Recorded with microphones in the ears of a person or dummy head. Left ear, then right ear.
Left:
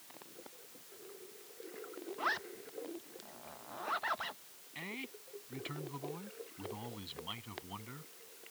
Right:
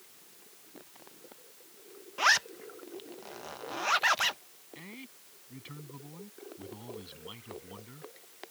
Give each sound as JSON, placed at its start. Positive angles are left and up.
{"t": 2.2, "sound": "a zipper", "side_deg": -80}
{"t": 4.8, "sound": "a man speaking", "side_deg": 25}